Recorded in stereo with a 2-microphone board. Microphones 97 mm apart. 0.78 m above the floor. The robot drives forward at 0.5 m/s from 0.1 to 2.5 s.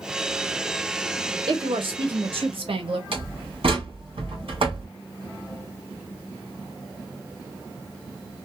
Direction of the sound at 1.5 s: 60° right (ahead or behind).